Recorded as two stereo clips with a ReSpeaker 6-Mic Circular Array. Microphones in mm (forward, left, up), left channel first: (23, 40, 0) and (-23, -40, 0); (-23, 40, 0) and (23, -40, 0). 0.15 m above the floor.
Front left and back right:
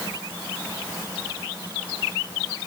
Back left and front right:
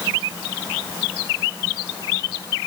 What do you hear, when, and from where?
Only background noise.